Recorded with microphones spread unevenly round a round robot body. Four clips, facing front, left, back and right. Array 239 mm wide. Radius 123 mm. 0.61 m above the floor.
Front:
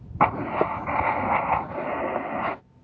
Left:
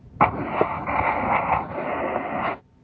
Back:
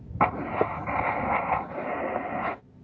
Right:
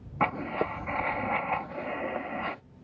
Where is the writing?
50° left.